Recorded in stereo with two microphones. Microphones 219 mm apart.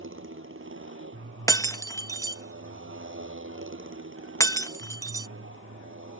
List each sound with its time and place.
0.0 s a motorcycle: 75° right (ahead or behind)
1.5 s breaking glass: 15° left (ahead or behind)